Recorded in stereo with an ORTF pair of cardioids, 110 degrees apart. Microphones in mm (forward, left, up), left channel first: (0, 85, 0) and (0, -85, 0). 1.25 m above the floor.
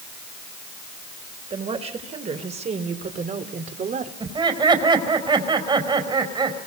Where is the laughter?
25° right, 5 m.